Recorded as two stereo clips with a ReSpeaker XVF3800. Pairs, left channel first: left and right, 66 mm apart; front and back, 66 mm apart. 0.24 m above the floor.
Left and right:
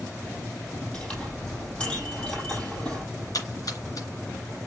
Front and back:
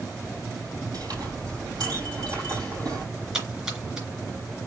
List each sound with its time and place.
0.9 s a clink: 165° left, 4 m
3.3 s a splash: 105° left, 3 m